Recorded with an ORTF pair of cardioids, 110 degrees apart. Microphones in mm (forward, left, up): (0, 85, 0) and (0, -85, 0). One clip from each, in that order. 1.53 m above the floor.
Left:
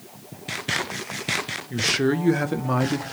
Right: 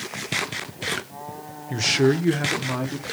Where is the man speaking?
20° right, 0.7 m; by 3.0 s 45° left, 0.7 m.